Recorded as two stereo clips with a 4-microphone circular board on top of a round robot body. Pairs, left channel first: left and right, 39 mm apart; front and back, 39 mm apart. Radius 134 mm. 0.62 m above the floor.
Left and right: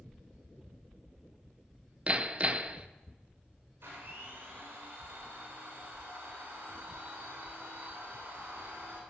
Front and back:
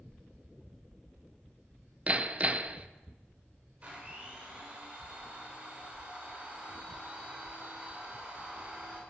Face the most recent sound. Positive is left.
turn(degrees=-115)